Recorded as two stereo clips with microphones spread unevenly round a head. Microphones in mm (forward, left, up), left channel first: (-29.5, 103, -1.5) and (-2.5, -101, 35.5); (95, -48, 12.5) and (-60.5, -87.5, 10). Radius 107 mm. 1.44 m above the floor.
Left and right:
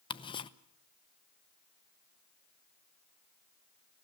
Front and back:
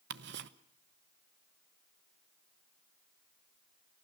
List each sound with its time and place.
0.1 s ticking: 170° left, 0.7 m